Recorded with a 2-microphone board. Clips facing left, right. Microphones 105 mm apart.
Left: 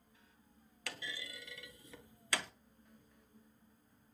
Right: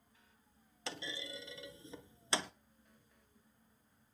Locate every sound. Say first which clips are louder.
0.9 s a clunk: right 3 dB; 20° right (ahead or behind), 0.7 m